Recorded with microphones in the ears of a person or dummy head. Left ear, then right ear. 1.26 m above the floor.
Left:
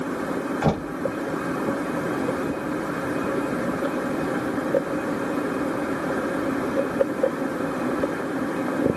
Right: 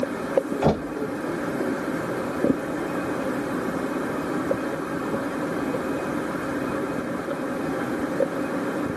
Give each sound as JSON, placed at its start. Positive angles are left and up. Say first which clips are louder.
{"t": 0.6, "sound": "knocking", "louder": "right 2 dB", "side_deg": 5, "distance_m": 1.1}